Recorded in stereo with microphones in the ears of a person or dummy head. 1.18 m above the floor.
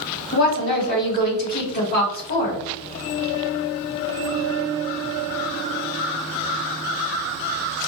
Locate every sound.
0.3 s a woman speaking: 50° left (ahead or behind), 2 m